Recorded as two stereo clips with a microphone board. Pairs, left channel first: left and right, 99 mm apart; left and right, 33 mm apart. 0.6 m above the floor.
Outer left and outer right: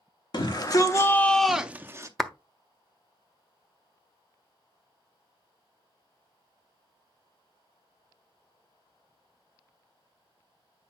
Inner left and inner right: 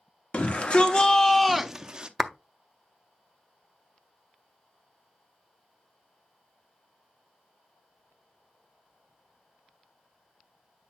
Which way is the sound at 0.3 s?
45° left (ahead or behind).